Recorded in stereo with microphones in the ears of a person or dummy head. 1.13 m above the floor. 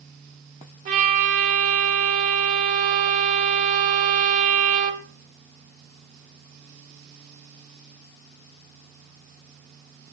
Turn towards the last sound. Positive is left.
turn(degrees=-40)  # may be behind; listen again after turning